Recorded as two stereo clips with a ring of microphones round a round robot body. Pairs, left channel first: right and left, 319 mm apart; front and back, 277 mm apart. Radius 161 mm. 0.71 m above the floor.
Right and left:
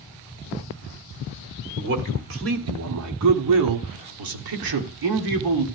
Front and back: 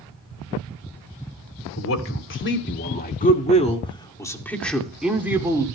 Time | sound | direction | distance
1.8 | a man speaking | 35° left | 2.5 m